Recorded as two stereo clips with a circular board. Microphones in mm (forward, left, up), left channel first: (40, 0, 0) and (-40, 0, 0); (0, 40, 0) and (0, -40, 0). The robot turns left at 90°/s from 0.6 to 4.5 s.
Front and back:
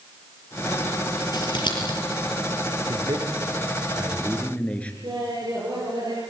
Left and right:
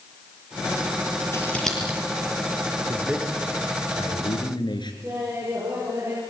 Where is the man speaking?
140° right, 4.5 m; by 4.9 s 75° left, 4.5 m.